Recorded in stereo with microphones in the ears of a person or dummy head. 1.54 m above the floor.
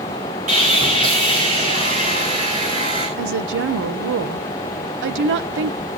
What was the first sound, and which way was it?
Sawing, 40° right (ahead or behind).